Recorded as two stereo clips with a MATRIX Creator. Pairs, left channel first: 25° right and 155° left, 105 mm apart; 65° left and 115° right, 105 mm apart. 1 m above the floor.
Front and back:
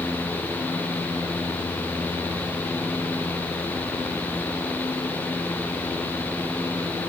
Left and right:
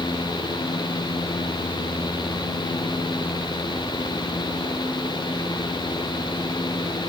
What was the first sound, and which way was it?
Only background noise.